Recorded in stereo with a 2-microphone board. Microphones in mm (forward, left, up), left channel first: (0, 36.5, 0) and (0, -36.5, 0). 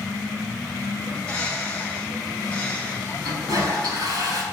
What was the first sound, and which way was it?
A bird, 20° left (ahead or behind).